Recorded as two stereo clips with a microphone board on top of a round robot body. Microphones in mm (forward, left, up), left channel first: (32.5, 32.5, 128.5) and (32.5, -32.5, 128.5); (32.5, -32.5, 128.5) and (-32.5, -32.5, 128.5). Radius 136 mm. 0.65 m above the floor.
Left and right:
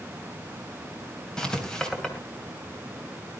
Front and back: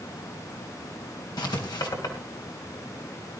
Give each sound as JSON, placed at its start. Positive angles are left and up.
{"t": 1.4, "sound": "writing", "azimuth_deg": 10, "distance_m": 3.0}